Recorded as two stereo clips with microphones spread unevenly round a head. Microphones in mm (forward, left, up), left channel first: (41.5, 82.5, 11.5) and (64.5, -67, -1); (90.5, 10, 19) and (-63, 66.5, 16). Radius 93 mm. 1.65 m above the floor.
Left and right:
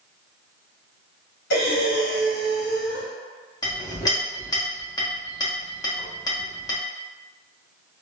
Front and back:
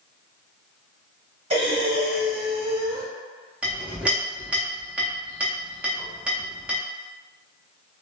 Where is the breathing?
105° left, 1.4 m.